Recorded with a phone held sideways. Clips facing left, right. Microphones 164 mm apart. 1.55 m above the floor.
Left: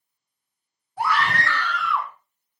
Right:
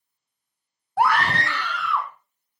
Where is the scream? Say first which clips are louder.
Right 3 dB; 75° right (ahead or behind), 0.6 m; by 2.1 s 5° left (ahead or behind), 1.7 m.